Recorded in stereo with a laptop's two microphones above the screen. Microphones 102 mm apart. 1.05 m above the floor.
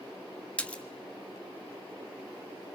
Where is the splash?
15° left (ahead or behind), 1.4 m.